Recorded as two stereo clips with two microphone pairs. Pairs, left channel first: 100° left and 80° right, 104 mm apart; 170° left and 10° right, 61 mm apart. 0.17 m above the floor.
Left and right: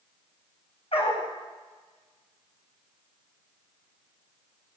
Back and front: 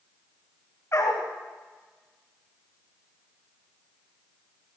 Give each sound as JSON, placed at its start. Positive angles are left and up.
{"t": 0.9, "sound": "a dog barking", "azimuth_deg": 125, "distance_m": 6.0}